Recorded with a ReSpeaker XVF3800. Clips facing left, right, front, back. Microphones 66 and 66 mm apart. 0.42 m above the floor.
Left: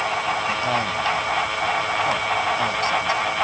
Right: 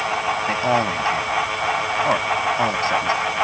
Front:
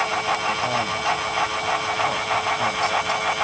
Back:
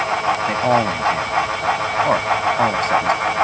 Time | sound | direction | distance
0.5 | a man speaking | 150° right | ?